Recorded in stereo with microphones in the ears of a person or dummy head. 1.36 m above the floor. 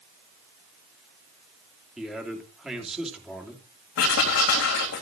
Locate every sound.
2.0 s a man speaking: centre (ahead or behind), 2.5 m
4.0 s writing: 65° left (ahead or behind), 3.5 m